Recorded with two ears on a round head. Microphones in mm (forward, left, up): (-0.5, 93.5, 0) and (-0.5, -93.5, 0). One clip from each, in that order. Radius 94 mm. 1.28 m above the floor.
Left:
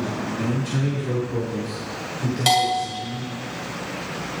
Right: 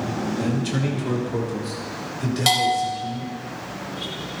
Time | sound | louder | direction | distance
0.4 | a man speaking | right 1 dB | 45° right (ahead or behind) | 1.8 m
2.5 | a bell | even | 10° right (ahead or behind) | 3 m